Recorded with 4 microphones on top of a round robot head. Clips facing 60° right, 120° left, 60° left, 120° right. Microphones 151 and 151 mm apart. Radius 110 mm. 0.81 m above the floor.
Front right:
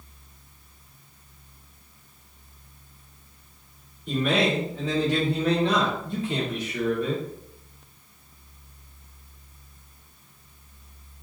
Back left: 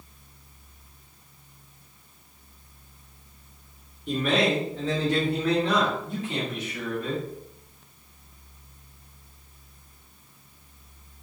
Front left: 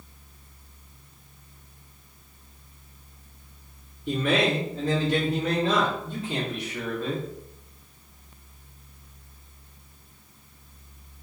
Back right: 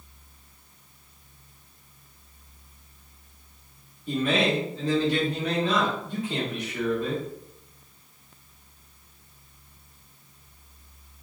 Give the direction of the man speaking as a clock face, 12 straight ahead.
11 o'clock.